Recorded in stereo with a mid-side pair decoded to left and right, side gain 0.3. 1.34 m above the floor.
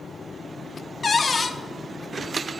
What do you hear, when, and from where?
1.0 s a cupboard door: 50° left, 0.5 m